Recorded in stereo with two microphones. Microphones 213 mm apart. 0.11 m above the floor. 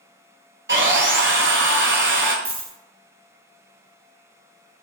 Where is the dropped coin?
85° right, 1.1 m.